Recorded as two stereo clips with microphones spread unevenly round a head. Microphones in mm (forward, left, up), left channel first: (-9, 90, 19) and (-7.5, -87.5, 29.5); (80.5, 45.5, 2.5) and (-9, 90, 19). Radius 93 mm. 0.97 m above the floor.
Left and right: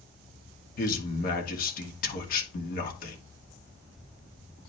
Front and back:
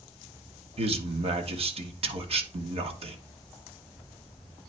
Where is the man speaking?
130° left, 1.6 m.